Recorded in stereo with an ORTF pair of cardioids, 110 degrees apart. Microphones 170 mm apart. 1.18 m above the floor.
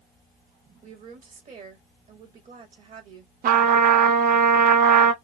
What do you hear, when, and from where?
0.8 s a woman speaking: 50° right, 2.5 m
3.4 s a trumpet: 55° right, 0.9 m